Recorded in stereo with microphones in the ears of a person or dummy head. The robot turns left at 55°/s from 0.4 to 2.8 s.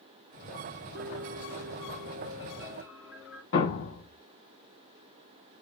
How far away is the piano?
About 0.9 m.